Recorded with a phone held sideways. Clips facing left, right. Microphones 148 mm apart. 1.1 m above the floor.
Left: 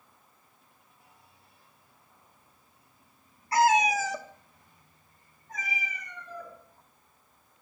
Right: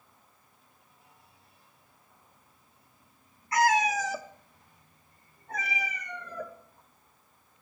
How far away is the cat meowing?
About 0.8 m.